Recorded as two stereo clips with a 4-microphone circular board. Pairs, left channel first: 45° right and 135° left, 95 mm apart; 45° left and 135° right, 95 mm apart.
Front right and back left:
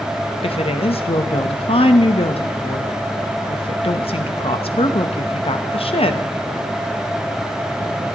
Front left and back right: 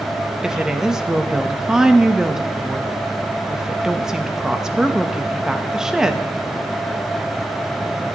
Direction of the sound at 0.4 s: 50° right.